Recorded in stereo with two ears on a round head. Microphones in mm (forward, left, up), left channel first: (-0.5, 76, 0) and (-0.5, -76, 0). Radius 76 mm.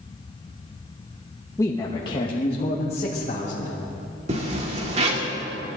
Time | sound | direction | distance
1.6 | a man speaking | 15° left (ahead or behind) | 1.0 m
4.3 | a zipper | 40° right (ahead or behind) | 2 m